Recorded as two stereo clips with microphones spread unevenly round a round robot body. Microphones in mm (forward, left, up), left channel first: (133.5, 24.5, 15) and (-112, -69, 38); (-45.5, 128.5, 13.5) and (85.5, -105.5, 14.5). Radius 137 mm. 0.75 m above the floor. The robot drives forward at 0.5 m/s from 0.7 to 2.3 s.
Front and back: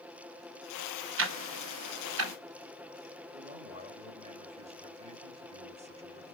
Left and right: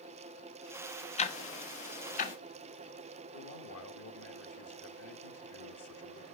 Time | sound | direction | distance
1.2 | ticking | 175° left | 1.3 m
3.3 | a man speaking | 135° left | 1.7 m